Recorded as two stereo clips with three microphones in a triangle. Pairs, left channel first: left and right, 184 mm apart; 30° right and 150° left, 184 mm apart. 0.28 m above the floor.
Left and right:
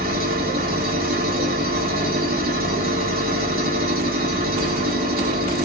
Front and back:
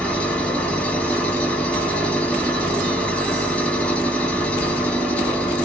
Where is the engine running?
115° right, 1.2 m.